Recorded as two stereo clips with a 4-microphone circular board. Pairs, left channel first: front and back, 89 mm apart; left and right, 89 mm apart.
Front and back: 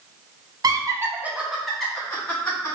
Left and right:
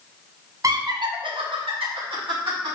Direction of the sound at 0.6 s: 140° right.